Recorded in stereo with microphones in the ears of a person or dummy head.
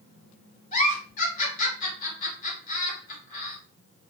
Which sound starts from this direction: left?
A giggle, at 0.7 s.